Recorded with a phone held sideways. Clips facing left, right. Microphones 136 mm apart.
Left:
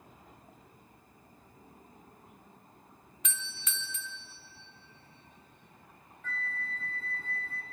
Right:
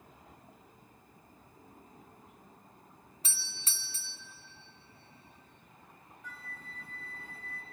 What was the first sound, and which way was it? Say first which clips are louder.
A doorbell: left 6 dB; 35° right (ahead or behind).